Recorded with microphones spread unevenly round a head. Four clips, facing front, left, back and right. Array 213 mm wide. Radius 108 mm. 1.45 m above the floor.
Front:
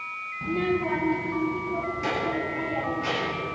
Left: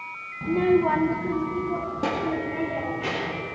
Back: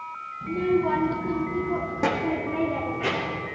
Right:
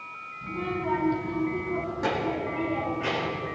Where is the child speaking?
75° left, 1.0 m; by 3.5 s 160° left, 3.5 m.